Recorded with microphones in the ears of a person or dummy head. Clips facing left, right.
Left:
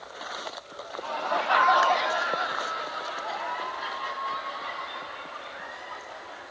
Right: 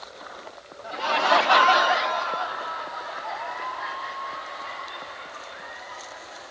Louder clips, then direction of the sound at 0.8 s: Right 8 dB; 80° right.